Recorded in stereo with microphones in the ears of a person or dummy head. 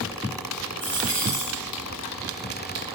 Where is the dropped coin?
15° left (ahead or behind), 3 m.